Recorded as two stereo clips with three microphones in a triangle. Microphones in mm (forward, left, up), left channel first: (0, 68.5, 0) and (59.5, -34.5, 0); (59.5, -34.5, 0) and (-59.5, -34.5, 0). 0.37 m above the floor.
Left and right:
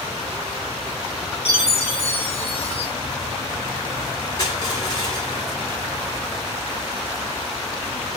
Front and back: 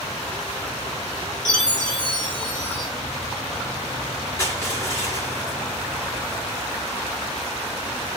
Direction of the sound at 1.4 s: 80° left.